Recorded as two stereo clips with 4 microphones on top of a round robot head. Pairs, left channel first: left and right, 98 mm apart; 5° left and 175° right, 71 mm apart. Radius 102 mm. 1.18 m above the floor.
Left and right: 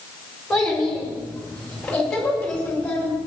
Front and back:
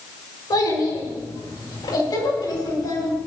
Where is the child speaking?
5° left, 7 m; by 3.2 s 15° left, 9 m.